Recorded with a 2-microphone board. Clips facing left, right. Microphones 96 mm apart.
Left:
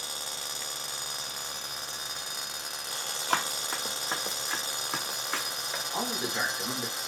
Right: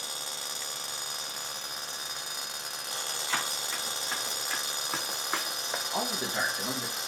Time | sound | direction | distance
3.3 | running footsteps | 65° left (ahead or behind) | 1.1 m
5.9 | a man speaking | 25° right (ahead or behind) | 1.2 m